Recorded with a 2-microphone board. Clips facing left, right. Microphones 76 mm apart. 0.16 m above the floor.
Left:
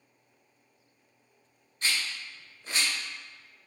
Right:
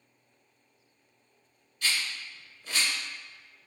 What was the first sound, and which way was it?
A rattle, 35° left (ahead or behind).